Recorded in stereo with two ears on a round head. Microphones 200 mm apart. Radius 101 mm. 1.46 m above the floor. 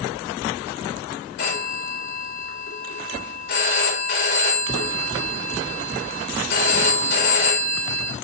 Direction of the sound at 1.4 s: 55° left (ahead or behind).